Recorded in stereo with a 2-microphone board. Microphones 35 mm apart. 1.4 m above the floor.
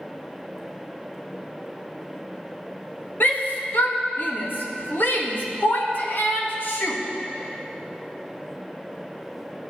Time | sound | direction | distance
3.2 | a shout | 65° left (ahead or behind) | 1.8 m